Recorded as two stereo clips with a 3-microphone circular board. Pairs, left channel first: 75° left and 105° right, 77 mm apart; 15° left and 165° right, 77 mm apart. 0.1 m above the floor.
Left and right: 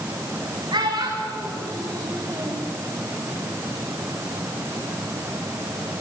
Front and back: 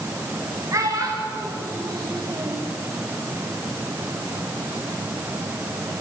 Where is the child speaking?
120° right, 9 m; by 2.7 s 140° right, 7.5 m.